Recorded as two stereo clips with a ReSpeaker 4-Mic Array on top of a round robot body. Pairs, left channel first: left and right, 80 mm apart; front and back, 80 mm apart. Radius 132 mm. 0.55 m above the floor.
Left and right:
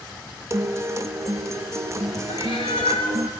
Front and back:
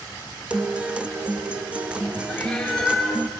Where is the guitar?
110° right, 0.6 m.